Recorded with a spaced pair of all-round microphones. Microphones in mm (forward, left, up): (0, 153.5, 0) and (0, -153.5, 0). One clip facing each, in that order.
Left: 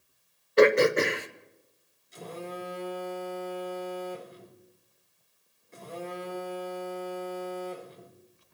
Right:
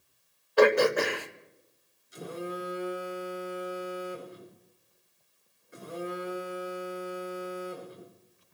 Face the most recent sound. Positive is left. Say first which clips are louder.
# right 2 dB
turn(degrees=-15)  # may be behind; listen again after turning